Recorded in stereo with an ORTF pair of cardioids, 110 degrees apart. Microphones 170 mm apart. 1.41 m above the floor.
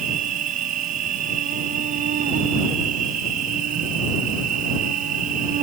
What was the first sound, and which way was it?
An insect, 50° right.